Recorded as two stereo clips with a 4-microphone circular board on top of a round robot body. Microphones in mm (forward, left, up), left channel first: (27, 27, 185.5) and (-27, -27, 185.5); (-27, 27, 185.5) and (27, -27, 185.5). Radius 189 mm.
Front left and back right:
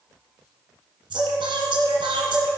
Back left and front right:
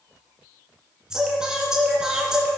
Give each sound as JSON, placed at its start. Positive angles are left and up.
{"t": 1.1, "sound": "singing", "azimuth_deg": -125, "distance_m": 2.0}